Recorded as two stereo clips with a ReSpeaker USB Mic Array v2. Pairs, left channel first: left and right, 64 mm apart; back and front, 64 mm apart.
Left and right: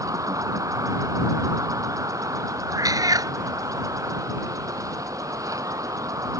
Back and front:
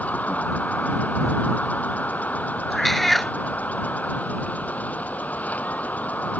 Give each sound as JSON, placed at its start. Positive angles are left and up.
{"t": 0.0, "sound": "an insect", "azimuth_deg": -115}
{"t": 2.7, "sound": "a cat meowing", "azimuth_deg": -95}